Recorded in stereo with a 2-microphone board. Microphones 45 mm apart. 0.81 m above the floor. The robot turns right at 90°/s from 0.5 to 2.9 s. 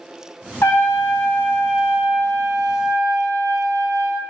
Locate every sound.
0.6 s a trumpet: 70° left, 0.6 m; by 4.3 s 85° right, 0.6 m